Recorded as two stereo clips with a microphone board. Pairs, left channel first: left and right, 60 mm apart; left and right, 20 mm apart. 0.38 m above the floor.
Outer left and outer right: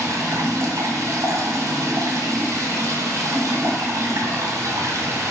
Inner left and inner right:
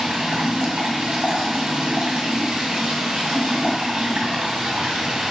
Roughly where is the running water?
Right.